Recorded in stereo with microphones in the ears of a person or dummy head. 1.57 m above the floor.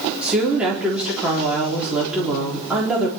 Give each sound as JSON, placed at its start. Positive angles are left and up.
{"t": 0.2, "sound": "a woman speaking", "side_deg": -5, "distance_m": 3.5}